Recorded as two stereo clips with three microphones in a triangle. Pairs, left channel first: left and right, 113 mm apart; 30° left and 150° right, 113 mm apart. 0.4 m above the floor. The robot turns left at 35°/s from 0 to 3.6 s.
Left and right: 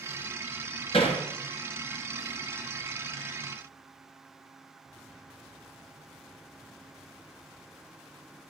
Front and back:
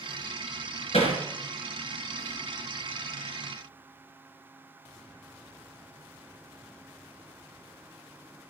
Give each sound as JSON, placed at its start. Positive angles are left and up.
{"t": 0.9, "sound": "hammering", "azimuth_deg": 55, "distance_m": 3.5}